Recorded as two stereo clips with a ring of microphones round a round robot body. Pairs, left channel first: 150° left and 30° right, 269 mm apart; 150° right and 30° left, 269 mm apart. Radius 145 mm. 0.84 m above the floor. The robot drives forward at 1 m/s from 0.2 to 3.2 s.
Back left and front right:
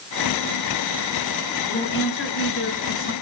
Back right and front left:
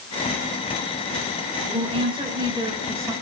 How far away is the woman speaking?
About 6 m.